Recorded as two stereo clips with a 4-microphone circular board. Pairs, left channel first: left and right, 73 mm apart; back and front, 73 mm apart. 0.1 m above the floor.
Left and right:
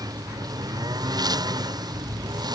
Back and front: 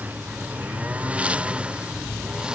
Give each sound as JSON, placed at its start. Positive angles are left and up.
{"t": 0.0, "sound": "a lawn mower", "azimuth_deg": -70}